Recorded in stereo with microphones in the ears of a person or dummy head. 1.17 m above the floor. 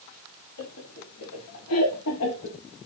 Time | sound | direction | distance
0.6 | laughter | 85° left | 4.5 m